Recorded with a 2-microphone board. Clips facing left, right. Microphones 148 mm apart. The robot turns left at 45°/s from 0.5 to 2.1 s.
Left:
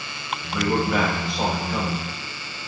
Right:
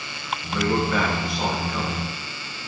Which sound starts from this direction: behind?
A man speaking, at 0.5 s.